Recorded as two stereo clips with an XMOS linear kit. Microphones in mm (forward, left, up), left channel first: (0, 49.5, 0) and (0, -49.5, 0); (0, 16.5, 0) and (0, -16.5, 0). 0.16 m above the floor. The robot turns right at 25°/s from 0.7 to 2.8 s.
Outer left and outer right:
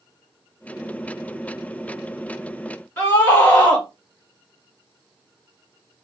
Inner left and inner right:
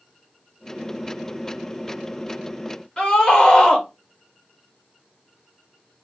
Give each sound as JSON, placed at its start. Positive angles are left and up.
{"t": 3.0, "sound": "a scream", "side_deg": 20, "distance_m": 2.5}